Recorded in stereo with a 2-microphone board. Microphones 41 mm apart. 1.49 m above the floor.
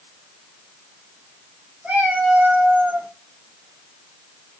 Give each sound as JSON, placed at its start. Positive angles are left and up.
{"t": 1.8, "sound": "a cat meowing", "side_deg": -50, "distance_m": 2.5}